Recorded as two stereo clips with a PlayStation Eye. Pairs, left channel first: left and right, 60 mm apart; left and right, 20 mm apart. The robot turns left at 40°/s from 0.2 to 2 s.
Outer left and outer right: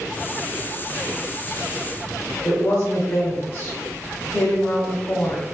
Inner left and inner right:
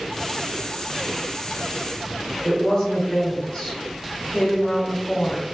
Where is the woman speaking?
55° left (ahead or behind), 1.3 m.